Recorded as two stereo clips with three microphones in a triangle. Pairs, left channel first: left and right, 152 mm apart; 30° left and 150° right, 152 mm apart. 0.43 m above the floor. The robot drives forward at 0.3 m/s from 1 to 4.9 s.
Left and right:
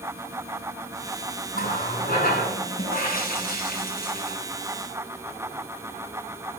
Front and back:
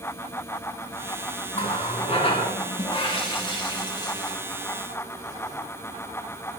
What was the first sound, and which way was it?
A running tap, 75° left.